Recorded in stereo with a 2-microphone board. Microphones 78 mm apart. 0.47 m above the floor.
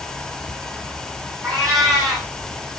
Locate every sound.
1.4 s a cat meowing: 50° right (ahead or behind), 6.5 m